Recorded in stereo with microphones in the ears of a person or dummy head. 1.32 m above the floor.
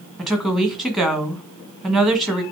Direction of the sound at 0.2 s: 5° left (ahead or behind).